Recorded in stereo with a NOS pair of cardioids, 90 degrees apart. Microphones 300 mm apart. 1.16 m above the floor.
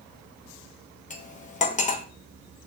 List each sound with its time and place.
1.1 s cutlery clinking: 25° left, 0.9 m